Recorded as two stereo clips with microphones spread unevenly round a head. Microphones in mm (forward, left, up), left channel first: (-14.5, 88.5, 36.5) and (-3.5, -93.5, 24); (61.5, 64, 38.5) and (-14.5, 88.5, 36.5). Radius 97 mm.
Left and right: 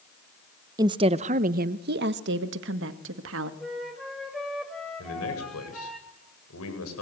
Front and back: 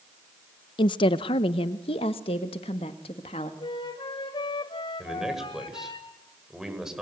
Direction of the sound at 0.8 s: 15° right.